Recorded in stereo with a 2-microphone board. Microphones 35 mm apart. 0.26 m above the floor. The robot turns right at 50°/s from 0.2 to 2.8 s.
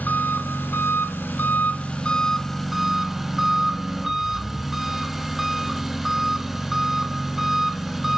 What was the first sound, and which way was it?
An engine running, 55° left.